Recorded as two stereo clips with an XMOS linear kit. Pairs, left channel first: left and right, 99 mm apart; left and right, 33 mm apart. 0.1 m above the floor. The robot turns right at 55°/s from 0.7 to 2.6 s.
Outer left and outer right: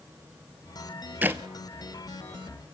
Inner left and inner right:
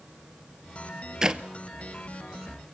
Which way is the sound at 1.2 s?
15° right (ahead or behind).